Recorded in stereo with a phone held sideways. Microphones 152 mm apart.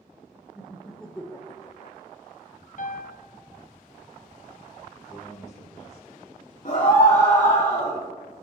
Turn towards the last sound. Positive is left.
turn(degrees=55)  # may be behind; listen again after turning